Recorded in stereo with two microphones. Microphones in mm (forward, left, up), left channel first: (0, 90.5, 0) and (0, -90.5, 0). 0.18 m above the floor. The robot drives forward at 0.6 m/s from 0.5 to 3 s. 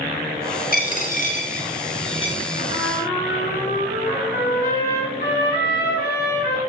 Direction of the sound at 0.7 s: 55° left (ahead or behind).